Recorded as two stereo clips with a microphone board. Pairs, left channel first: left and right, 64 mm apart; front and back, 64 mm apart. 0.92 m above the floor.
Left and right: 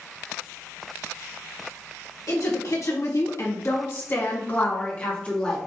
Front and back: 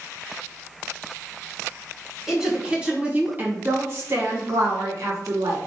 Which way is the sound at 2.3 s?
100° left.